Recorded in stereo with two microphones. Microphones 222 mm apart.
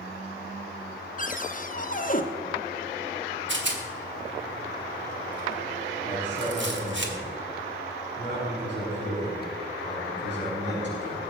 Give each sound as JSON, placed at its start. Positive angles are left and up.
{"t": 1.2, "sound": "a cupboard door", "side_deg": 40, "distance_m": 0.9}
{"t": 3.5, "sound": "a rattle", "side_deg": -60, "distance_m": 1.9}
{"t": 6.1, "sound": "a man speaking", "side_deg": -55, "distance_m": 6.0}